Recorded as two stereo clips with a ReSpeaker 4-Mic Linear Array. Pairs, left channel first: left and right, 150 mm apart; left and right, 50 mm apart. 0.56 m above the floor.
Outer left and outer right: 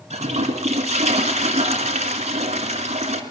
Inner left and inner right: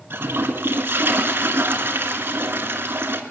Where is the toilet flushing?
50° right (ahead or behind), 1.5 m.